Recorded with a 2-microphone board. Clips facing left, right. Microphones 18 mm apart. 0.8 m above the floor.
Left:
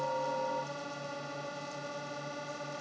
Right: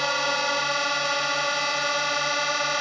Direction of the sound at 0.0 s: 75° right (ahead or behind).